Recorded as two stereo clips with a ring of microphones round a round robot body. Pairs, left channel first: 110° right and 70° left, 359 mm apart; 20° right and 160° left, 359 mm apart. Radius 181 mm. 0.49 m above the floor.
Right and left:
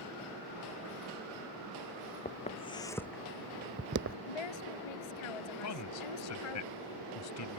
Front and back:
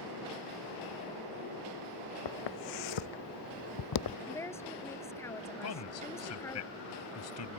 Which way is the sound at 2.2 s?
45° right.